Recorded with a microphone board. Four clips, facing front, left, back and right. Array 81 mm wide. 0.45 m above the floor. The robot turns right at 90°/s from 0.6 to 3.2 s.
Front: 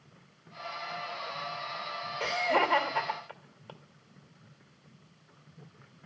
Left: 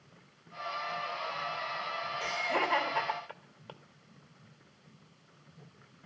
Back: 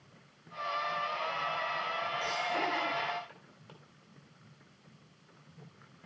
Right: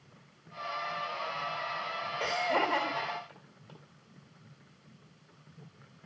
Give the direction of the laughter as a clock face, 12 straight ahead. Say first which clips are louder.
Right 3 dB, front 9 dB; 1 o'clock.